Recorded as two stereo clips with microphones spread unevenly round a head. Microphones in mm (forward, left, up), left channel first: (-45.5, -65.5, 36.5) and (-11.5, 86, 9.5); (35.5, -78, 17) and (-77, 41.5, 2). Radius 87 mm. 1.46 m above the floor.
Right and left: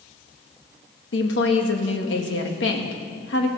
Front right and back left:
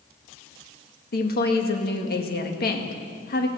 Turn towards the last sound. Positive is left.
turn(degrees=-75)